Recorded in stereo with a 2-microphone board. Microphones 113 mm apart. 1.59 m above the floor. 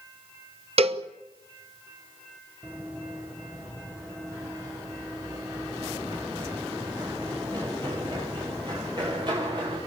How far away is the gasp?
I don't hear a gasp.